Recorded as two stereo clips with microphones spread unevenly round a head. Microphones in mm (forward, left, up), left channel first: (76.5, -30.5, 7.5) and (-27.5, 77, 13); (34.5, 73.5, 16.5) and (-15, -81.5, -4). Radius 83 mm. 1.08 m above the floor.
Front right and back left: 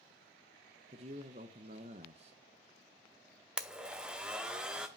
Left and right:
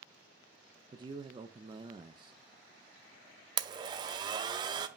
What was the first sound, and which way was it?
A man speaking, 170° right.